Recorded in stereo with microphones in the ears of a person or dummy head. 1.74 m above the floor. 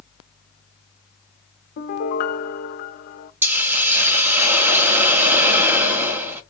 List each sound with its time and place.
1.8 s a piano: 60° left (ahead or behind), 0.6 m
3.4 s a hiss: 10° right (ahead or behind), 0.8 m